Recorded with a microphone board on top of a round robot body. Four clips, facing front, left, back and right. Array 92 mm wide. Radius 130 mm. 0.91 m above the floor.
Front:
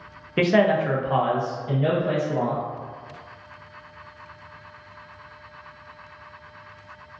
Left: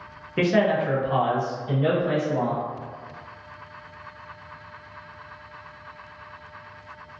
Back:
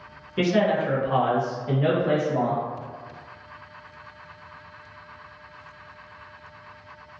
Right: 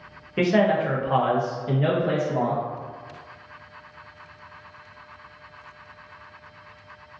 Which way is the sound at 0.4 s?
5° left.